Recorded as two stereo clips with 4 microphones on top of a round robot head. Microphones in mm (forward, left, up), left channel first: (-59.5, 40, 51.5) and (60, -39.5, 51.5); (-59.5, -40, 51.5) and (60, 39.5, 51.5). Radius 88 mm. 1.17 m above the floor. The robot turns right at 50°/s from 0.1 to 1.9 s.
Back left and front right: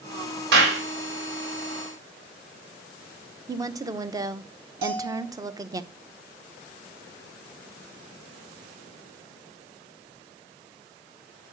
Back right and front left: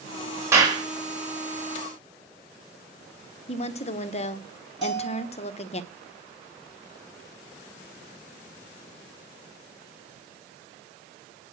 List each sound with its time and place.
0.5 s a clap: 40° right, 4 m; by 0.8 s 25° right, 4 m
3.5 s a woman speaking: 100° right, 1.0 m
4.8 s a bell: 55° right, 4.5 m